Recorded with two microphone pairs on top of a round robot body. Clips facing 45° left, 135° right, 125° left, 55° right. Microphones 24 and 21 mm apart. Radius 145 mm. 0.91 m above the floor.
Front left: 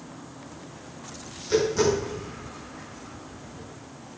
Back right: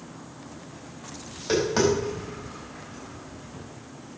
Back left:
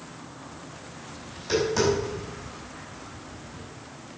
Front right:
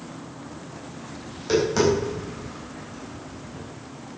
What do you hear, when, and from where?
1.3 s tapping: 125° right, 5 m